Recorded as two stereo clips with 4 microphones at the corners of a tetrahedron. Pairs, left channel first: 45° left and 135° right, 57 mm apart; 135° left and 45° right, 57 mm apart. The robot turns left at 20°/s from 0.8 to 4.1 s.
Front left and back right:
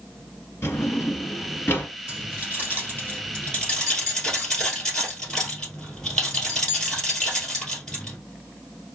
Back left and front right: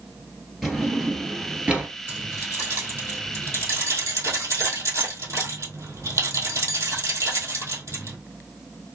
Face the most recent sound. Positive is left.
turn(degrees=-35)